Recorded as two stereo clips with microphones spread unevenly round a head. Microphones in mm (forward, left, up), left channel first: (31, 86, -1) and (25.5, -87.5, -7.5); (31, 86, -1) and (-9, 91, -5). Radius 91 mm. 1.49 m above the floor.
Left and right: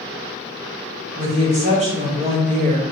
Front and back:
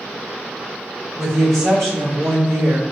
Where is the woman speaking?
150° right, 1.5 m.